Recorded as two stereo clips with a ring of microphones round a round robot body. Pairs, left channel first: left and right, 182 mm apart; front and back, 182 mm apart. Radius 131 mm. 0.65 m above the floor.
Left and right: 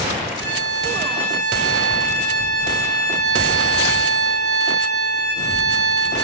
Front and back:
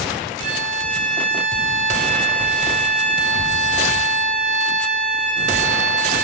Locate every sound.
0.4 s a violin: 150° right, 1.6 m